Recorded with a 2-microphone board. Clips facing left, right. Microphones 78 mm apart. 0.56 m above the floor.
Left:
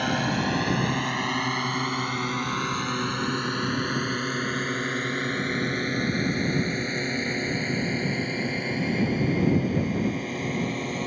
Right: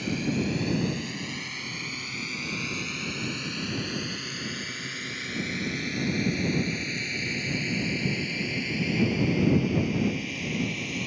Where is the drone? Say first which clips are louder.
Left 3 dB; 70° left (ahead or behind); by 11.1 s 40° left (ahead or behind).